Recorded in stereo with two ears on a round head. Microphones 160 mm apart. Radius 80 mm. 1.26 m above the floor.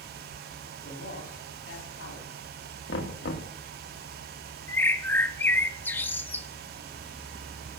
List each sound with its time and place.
0.8 s a man speaking: 80° left, 3 m
2.9 s knocking: 70° left (ahead or behind), 1.5 m
4.7 s a bird: 10° left (ahead or behind), 0.6 m